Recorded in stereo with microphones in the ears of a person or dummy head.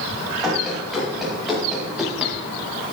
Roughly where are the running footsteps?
Centre.